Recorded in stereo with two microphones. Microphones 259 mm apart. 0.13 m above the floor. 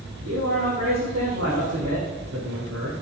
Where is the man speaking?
65° right (ahead or behind), 4.5 m.